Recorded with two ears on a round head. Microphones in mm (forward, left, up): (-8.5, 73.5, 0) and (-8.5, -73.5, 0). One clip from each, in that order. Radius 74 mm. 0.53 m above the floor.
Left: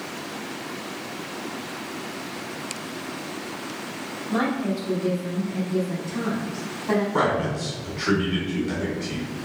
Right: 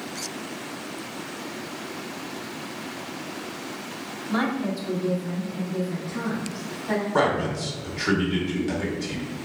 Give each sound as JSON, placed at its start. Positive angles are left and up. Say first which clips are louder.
{"t": 4.3, "sound": "a woman speaking", "louder": "left 1 dB", "side_deg": -40, "distance_m": 0.9}
{"t": 7.1, "sound": "a man speaking", "louder": "even", "side_deg": -25, "distance_m": 1.3}